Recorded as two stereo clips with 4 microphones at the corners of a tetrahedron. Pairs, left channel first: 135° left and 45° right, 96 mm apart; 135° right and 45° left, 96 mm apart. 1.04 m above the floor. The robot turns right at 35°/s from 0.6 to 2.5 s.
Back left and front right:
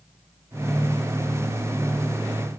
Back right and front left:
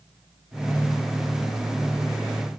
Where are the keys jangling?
I don't hear keys jangling.